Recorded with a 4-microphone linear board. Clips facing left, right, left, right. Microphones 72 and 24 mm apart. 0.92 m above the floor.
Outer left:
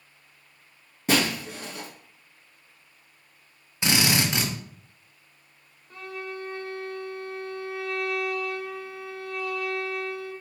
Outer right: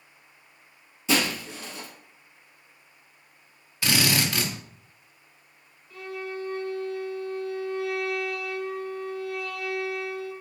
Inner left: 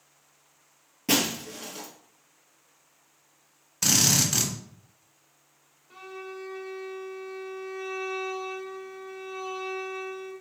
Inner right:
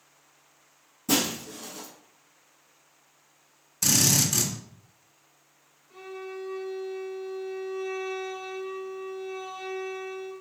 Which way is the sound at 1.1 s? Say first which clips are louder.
Outer left 1 dB, inner left 1 dB; 55° left (ahead or behind).